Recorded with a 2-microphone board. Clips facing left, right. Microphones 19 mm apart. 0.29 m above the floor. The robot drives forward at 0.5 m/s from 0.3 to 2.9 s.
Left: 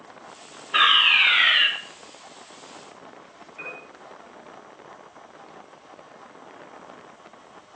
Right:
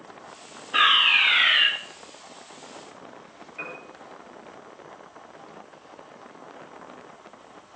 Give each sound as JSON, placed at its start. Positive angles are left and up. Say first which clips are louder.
{"t": 0.7, "sound": "a fire alarm", "louder": "left 1 dB", "side_deg": 15, "distance_m": 1.9}
{"t": 3.6, "sound": "a piano", "louder": "even", "side_deg": -10, "distance_m": 5.0}